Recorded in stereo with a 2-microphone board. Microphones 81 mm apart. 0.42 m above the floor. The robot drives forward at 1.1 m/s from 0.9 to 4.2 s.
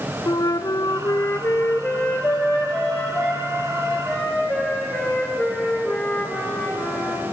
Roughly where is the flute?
Left.